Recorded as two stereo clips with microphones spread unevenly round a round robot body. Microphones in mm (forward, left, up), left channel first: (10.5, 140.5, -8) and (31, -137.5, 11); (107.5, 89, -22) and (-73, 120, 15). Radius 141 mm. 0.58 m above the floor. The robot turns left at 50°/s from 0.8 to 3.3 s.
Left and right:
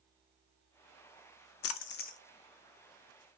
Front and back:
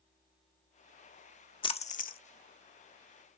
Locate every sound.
1.6 s a splash: 55° left, 0.5 m; by 2.2 s 25° left, 0.5 m